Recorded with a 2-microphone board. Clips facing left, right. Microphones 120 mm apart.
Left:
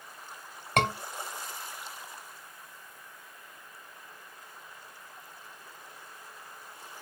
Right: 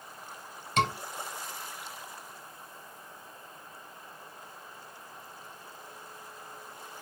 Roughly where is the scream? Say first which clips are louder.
Left 1 dB; left.